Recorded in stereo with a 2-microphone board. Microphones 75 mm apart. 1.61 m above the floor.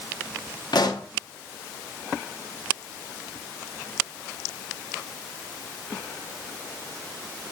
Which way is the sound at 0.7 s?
70° left (ahead or behind).